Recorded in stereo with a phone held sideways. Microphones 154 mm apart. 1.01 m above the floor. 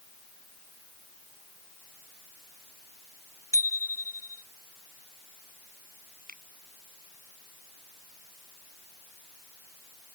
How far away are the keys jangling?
I don't hear keys jangling.